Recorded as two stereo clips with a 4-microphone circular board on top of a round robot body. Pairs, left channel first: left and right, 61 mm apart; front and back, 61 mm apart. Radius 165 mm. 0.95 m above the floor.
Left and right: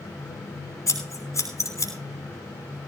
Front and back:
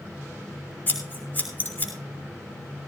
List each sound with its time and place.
0.9 s scissors: 60° left, 5 m